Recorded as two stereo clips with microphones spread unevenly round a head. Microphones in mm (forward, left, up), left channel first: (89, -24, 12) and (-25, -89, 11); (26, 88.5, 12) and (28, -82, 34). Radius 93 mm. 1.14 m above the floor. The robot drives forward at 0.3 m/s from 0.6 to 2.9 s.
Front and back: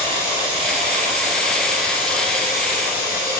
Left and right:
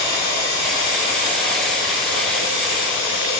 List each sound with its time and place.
0.0 s running water: 105° left, 3.5 m; by 3.4 s 115° left, 4 m